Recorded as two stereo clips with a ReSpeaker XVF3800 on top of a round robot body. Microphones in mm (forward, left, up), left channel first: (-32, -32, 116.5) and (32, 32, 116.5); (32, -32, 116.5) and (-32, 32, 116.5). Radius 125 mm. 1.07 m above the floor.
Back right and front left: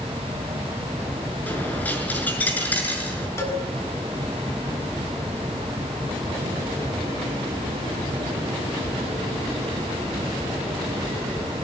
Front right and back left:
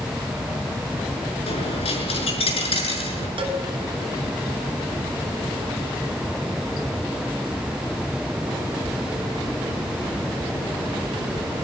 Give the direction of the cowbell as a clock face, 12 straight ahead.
7 o'clock.